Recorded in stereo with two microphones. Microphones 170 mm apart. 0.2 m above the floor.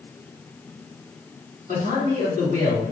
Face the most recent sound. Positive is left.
turn(degrees=-50)  # may be behind; listen again after turning